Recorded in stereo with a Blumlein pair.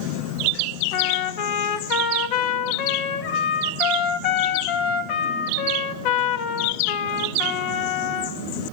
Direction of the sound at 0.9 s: 45° left.